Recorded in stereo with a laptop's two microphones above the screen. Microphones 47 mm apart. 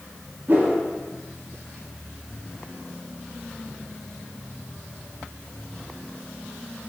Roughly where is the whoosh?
Right.